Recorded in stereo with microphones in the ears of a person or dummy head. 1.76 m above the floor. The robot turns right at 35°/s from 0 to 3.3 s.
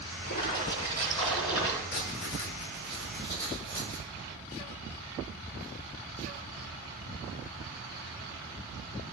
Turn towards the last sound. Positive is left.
turn(degrees=160)